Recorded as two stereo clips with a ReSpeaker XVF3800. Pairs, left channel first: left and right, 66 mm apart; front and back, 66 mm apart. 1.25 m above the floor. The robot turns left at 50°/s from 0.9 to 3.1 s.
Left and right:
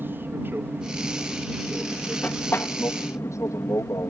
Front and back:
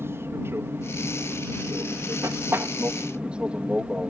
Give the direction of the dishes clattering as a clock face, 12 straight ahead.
No dishes clattering in this recording.